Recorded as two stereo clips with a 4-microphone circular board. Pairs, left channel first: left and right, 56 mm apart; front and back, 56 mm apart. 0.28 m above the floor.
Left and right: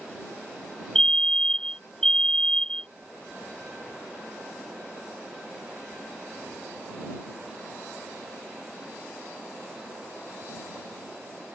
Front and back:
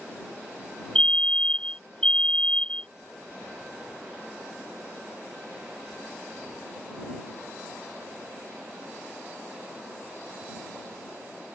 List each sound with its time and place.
0.9 s a fire alarm: 35° left